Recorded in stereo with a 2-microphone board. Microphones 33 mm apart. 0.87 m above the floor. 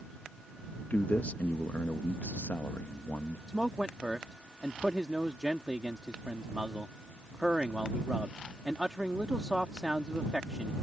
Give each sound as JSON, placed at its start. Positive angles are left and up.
{"t": 0.9, "sound": "a man speaking", "side_deg": 55}
{"t": 3.5, "sound": "a man speaking", "side_deg": -20}